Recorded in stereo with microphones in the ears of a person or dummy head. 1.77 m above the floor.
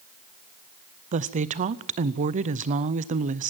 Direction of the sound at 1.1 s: 40° right (ahead or behind).